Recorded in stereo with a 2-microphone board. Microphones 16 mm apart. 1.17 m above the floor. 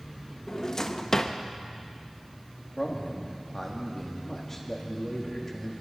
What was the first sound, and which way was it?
A drawer, 30° left (ahead or behind).